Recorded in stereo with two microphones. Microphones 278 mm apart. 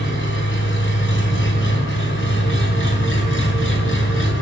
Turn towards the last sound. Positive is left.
turn(degrees=45)  # may be behind; listen again after turning